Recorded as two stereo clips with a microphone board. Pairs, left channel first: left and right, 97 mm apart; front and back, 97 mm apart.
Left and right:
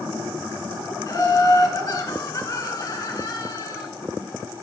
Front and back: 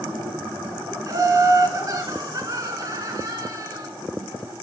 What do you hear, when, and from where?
1.1 s laughter: 140° left, 1.4 m